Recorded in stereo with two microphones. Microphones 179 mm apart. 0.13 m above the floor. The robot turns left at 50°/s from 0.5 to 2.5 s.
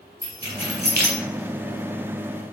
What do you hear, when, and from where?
0.2 s keys jangling: 30° right (ahead or behind), 1.0 m; by 1.2 s 10° right (ahead or behind), 1.0 m